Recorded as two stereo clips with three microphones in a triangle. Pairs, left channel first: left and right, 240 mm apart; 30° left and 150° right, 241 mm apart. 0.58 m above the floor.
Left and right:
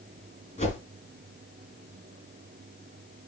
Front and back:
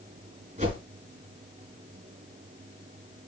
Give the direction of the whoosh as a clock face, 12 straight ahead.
7 o'clock.